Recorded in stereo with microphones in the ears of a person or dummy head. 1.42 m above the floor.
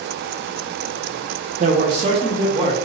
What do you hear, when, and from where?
1.6 s a man speaking: 45° right (ahead or behind), 0.6 m; by 2.8 s 35° right (ahead or behind), 1.4 m